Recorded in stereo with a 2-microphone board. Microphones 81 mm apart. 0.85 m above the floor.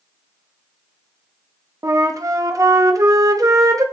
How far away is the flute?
About 0.8 m.